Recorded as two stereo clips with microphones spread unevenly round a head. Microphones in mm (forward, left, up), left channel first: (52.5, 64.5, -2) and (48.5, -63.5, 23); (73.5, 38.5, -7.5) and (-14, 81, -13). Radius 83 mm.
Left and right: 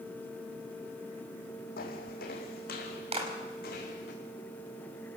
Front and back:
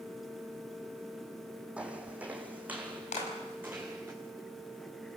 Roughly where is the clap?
Ahead right.